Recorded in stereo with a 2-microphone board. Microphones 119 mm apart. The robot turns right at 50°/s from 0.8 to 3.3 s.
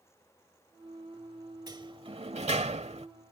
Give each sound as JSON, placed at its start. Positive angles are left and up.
{"t": 1.7, "sound": "a sliding door", "azimuth_deg": -140}